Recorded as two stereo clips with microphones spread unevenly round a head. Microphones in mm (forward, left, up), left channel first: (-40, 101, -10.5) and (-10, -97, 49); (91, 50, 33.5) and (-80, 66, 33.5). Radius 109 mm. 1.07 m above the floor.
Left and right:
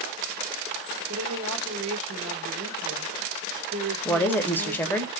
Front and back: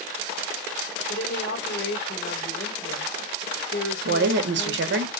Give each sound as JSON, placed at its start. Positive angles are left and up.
{"t": 1.1, "sound": "a woman speaking", "azimuth_deg": -45, "distance_m": 2.5}
{"t": 4.0, "sound": "a woman speaking", "azimuth_deg": 175, "distance_m": 0.9}